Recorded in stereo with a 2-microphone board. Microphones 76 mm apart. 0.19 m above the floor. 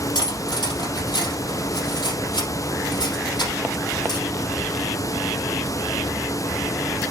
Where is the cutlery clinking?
75° left (ahead or behind), 3 m.